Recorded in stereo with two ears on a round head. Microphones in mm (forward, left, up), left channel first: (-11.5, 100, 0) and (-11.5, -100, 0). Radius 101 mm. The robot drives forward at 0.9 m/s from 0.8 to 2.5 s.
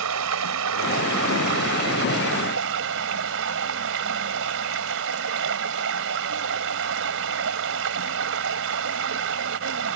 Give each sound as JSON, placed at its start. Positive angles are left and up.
{"t": 0.0, "sound": "running water", "side_deg": -80}